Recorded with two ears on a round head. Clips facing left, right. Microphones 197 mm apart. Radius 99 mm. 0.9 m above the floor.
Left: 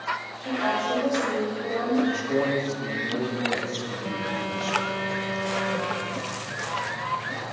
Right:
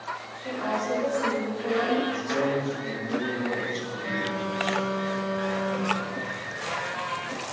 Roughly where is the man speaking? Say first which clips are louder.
Left 2 dB; left.